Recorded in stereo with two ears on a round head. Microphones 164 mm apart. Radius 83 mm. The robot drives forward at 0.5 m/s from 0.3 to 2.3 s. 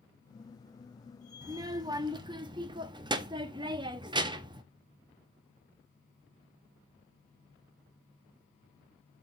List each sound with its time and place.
1.4 s a child speaking: 20° right (ahead or behind), 0.9 m; by 4.6 s 25° right (ahead or behind), 0.7 m